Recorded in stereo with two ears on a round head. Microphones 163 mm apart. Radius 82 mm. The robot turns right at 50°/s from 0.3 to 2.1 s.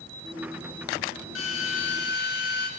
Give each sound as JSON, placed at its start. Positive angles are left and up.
{"t": 1.4, "sound": "a drill", "azimuth_deg": 75, "distance_m": 8.5}